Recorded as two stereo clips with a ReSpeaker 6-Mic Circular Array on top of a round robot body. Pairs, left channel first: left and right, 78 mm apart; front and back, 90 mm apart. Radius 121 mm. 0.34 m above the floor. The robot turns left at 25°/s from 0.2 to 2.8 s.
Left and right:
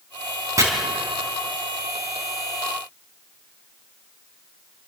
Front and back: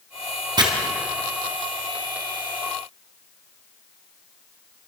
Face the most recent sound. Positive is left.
turn(degrees=160)